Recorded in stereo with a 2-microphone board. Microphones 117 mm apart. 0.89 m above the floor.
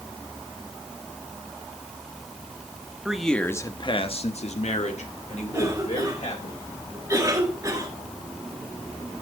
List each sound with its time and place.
3.0 s a man speaking: 5° right (ahead or behind), 1.5 m; by 6.5 s 75° left (ahead or behind), 4.5 m
5.5 s a cough: 30° right (ahead or behind), 5 m